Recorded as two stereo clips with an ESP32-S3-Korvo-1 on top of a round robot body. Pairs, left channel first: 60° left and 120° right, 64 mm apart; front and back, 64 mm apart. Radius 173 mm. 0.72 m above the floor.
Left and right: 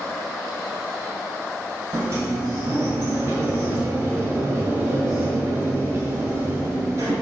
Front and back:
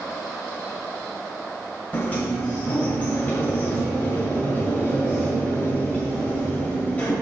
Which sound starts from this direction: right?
A sliding door, at 1.9 s.